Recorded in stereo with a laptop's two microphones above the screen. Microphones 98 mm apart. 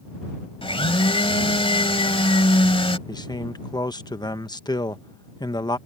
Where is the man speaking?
45° left (ahead or behind).